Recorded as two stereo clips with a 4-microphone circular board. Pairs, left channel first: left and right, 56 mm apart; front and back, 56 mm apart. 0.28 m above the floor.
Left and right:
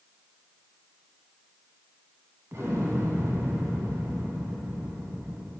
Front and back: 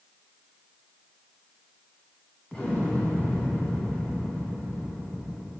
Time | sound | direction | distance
2.5 | an explosion | 65° right | 1.8 m